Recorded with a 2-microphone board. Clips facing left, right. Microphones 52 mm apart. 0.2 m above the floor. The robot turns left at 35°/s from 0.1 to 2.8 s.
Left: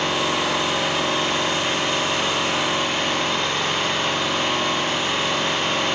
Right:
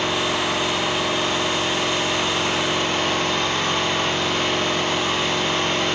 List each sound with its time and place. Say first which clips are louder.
0.0 s an engine running: even; 105° left, 1.2 m; by 6.0 s 10° left, 1.2 m